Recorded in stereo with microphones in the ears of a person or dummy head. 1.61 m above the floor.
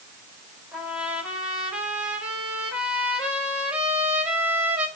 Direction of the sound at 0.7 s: 5° right (ahead or behind).